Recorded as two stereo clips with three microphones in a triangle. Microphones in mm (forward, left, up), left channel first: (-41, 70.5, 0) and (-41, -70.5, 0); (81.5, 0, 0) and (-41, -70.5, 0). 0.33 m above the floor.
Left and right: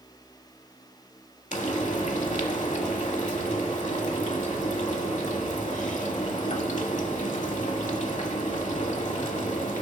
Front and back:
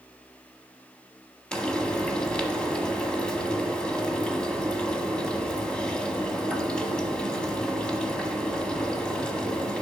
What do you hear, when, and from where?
1.5 s frying: 110° left, 1.0 m